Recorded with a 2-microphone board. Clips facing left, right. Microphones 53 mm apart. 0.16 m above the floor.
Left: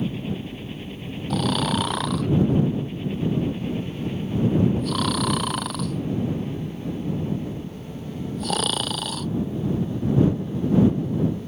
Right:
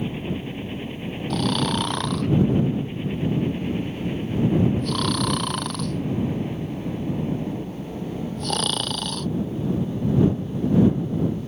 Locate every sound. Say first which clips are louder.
0.0 s a helicopter: even; 25° right (ahead or behind)
1.3 s snoring: even; 5° left (ahead or behind)